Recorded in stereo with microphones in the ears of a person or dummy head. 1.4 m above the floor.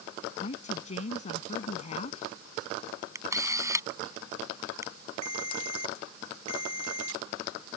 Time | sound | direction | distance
0.4 | a woman speaking | 40° left (ahead or behind) | ?
3.1 | a camera shutter | 20° right (ahead or behind) | ?
5.2 | a ringtone | 40° right (ahead or behind) | ?